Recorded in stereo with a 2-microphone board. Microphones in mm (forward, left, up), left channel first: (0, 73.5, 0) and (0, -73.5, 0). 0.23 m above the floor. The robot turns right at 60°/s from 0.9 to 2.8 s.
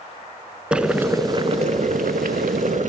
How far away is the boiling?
About 0.6 m.